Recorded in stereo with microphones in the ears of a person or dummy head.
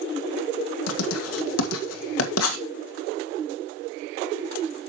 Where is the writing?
85° left, 1.8 m.